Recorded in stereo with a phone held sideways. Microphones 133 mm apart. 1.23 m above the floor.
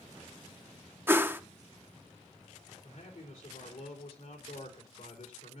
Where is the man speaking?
85° left, 4 m.